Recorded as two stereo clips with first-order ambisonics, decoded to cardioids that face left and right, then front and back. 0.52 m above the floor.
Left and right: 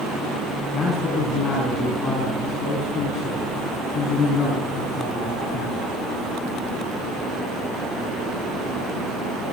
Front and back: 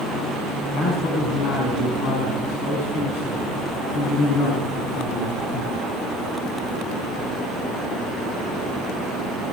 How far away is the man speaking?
About 5 m.